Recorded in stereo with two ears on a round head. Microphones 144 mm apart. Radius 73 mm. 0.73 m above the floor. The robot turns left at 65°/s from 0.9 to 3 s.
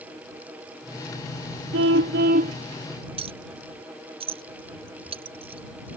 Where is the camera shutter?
No camera shutter in this recording.